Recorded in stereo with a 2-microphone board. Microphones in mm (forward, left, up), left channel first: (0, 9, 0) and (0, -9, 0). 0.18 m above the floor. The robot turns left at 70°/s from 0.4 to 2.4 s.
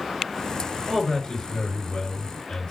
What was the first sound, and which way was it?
A man speaking, 165° left.